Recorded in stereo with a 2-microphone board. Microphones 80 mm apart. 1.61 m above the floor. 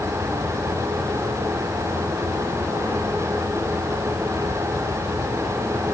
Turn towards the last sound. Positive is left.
No sound to turn to.